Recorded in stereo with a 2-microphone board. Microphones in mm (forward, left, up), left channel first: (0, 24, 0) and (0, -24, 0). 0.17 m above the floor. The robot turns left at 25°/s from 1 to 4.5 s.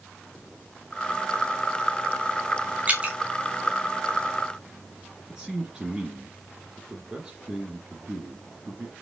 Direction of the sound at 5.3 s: 15° right (ahead or behind).